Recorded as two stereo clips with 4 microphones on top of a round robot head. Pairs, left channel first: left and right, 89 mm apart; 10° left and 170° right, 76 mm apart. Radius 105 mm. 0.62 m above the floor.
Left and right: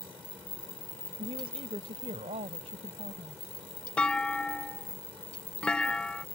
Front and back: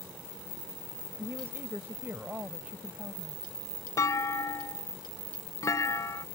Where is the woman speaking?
110° right; by 3.4 s 90° right.